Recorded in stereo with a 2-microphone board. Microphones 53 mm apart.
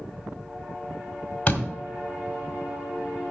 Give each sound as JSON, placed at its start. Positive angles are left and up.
{"t": 1.5, "sound": "a door slam", "side_deg": 30, "distance_m": 1.6}